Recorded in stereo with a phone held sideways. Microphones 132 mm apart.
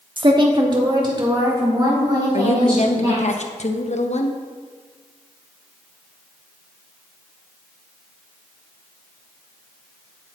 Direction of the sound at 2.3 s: 60° left (ahead or behind).